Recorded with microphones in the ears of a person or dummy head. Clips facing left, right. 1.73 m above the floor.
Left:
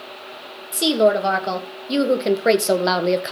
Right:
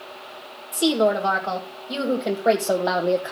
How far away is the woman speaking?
About 2.5 m.